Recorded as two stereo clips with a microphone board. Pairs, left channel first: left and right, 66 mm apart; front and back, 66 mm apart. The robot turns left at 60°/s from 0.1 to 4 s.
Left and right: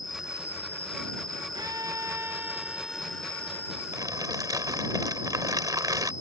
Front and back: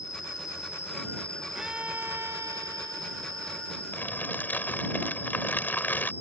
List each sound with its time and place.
0.0 s an insect: straight ahead; by 6.2 s 125° left
1.6 s a violin: 100° right; by 3.8 s 125° left
3.9 s crumpling: 60° right; by 6.1 s 65° right